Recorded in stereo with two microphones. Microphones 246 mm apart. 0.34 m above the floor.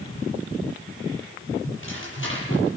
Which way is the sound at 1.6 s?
55° left (ahead or behind).